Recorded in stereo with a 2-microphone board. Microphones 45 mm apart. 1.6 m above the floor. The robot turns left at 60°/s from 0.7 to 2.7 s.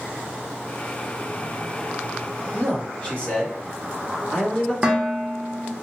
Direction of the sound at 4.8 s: 20° right (ahead or behind).